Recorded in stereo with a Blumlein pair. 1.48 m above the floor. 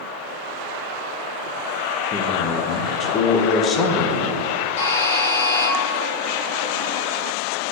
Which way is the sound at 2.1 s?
25° left.